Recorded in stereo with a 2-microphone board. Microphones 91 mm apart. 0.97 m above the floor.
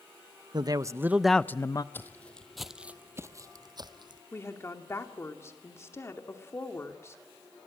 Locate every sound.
0.5 s a man speaking: 50° right (ahead or behind), 0.8 m; by 1.8 s 40° left (ahead or behind), 0.7 m
1.9 s footsteps: 25° left (ahead or behind), 1.4 m; by 4.2 s 55° right (ahead or behind), 1.6 m
4.3 s a woman speaking: 30° left (ahead or behind), 2.5 m